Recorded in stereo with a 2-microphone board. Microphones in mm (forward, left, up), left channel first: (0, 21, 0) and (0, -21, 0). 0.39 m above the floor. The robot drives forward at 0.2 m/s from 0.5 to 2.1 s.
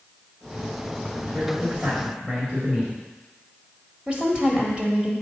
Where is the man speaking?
30° right (ahead or behind), 1.8 m.